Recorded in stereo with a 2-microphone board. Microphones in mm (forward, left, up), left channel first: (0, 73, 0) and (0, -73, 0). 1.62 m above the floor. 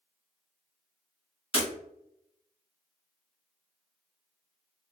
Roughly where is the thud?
I don't hear a thud.